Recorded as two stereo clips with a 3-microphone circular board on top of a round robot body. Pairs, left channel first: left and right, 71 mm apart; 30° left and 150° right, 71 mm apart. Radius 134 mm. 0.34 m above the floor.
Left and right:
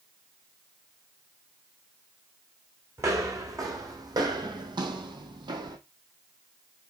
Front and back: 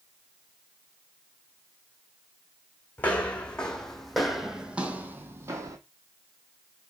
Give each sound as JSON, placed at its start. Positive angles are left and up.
{"t": 3.0, "sound": "footsteps", "azimuth_deg": -40, "distance_m": 1.6}